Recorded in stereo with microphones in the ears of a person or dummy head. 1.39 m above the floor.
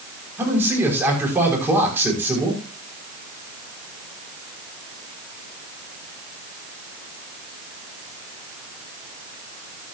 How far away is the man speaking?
About 5.5 m.